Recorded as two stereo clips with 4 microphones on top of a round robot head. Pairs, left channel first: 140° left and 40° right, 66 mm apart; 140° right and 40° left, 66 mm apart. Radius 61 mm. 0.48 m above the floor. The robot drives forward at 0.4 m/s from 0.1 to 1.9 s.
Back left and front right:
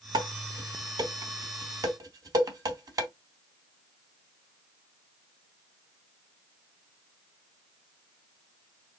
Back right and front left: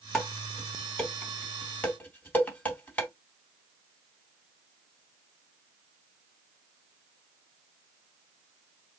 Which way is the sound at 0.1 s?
55° right.